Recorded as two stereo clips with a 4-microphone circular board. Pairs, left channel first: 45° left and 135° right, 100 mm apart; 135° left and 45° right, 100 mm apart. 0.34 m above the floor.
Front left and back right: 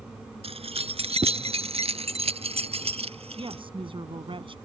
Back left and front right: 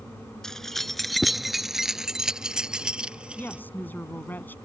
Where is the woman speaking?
155° right.